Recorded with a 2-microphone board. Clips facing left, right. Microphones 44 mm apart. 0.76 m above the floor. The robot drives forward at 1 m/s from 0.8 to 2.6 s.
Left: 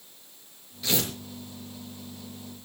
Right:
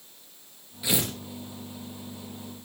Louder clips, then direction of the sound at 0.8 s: Right 1 dB; 15° right (ahead or behind).